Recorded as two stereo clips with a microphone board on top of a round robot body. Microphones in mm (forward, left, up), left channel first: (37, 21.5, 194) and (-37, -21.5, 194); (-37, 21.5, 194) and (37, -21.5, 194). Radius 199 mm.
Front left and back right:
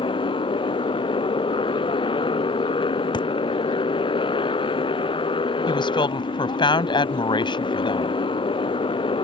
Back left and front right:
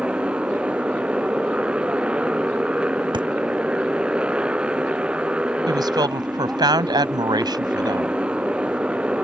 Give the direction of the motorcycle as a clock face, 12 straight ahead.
10 o'clock.